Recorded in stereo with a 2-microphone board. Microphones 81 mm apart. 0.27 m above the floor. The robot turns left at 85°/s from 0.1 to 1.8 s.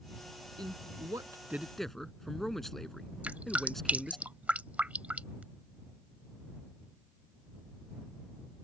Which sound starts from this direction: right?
A man speaking, at 0.6 s.